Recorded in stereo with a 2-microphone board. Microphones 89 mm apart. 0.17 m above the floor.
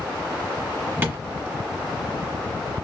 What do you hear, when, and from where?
1.0 s tapping: 25° right (ahead or behind), 1.6 m